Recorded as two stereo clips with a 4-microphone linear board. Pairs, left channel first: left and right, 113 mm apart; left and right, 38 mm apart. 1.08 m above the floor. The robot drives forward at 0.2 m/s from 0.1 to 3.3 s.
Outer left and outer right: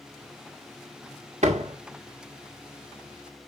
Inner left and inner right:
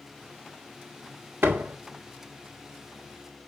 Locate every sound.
1.4 s a door slam: 75° right (ahead or behind), 2.0 m; by 1.8 s 70° right (ahead or behind), 2.0 m